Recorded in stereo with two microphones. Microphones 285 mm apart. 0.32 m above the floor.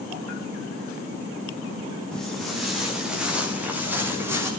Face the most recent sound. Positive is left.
turn(degrees=-10)  # may be behind; listen again after turning